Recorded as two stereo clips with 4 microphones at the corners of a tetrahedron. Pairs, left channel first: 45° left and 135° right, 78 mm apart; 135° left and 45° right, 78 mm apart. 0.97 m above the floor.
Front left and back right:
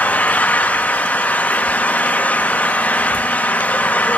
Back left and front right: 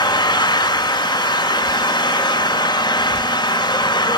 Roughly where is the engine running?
Behind left.